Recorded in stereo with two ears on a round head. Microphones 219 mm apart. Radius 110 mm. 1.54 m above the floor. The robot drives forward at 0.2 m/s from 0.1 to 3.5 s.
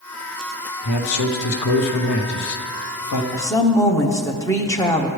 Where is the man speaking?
75° left (ahead or behind), 0.9 m.